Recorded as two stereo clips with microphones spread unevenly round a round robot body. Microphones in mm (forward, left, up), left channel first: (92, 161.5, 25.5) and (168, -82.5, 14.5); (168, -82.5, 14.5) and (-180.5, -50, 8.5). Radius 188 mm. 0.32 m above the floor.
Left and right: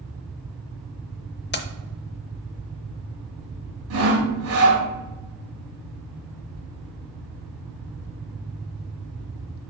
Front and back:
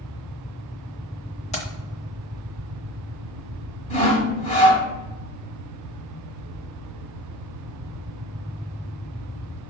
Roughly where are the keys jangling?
Ahead left.